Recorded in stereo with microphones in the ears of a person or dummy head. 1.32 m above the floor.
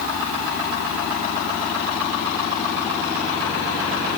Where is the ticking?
No ticking in this recording.